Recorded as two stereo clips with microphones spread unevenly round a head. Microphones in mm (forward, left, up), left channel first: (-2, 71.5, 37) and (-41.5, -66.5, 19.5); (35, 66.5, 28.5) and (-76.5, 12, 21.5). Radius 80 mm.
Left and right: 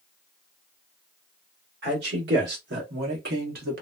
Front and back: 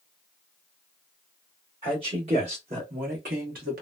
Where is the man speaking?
95° right, 1.7 m; by 3.8 s 130° right, 1.0 m.